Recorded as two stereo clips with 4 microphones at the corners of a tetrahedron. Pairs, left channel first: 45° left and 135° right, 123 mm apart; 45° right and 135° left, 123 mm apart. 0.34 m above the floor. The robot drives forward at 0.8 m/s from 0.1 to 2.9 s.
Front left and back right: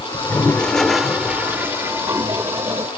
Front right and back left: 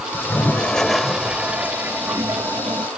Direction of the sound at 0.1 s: 5° right.